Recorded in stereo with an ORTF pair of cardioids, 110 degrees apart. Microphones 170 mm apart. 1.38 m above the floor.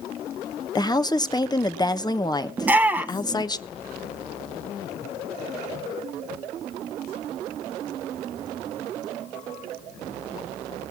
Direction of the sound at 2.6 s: 10° right.